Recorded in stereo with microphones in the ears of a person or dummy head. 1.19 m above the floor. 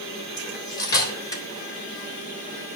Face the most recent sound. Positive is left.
turn(degrees=20)  # may be behind; listen again after turning